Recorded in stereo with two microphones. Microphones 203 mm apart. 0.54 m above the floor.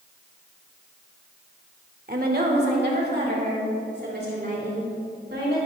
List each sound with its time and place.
2.1 s a woman speaking: 45° right (ahead or behind), 1.2 m; by 5.6 s 55° right (ahead or behind), 6 m